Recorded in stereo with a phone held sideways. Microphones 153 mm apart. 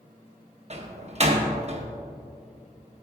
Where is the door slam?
45° right (ahead or behind), 0.8 m.